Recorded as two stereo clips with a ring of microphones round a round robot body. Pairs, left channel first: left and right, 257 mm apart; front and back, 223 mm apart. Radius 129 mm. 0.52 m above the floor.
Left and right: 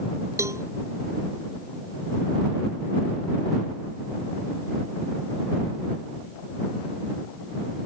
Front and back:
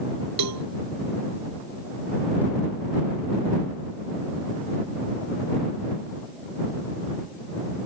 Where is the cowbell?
170° right.